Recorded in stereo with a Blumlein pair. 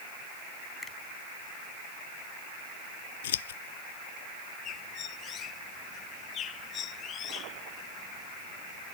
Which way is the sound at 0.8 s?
15° left.